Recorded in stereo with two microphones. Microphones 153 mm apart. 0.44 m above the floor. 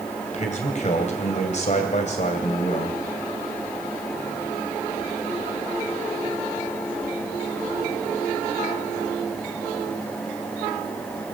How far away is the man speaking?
About 2.5 m.